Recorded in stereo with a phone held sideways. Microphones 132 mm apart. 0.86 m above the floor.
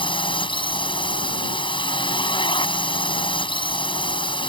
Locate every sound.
0.0 s a drone: 40° left (ahead or behind)